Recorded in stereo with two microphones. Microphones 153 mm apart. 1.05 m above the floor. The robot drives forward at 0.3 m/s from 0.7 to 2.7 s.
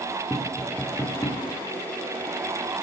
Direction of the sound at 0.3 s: 20° left (ahead or behind).